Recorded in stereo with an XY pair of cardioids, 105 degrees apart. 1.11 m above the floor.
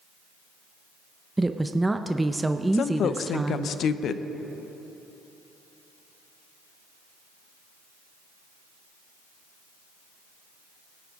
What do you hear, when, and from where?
1.4 s a woman speaking: 15° right, 0.5 m
2.7 s a woman speaking: 60° left, 0.5 m